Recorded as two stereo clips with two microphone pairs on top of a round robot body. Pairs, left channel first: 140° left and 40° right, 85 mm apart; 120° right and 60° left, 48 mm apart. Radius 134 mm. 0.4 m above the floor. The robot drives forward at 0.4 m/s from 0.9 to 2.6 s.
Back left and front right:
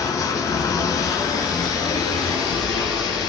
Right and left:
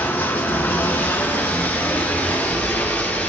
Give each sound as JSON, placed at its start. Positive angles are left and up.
{"t": 0.0, "sound": "running water", "azimuth_deg": -165, "distance_m": 0.8}